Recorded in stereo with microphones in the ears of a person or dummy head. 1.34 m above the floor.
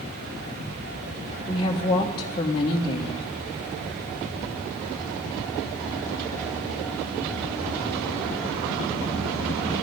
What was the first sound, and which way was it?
A woman speaking, 30° left (ahead or behind).